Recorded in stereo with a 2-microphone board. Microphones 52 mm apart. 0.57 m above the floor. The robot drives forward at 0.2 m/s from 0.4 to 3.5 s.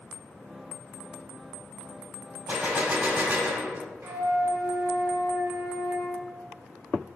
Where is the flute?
45° right (ahead or behind), 0.7 m.